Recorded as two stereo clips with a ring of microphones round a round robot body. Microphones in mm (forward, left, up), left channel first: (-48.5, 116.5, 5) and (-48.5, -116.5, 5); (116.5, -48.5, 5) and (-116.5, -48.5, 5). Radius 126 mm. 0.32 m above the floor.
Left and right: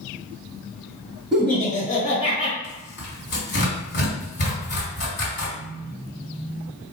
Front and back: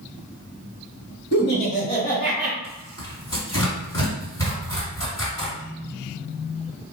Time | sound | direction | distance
1.3 | laughter | 5° right | 1.4 m
2.6 | tearing paper | 70° left | 1.7 m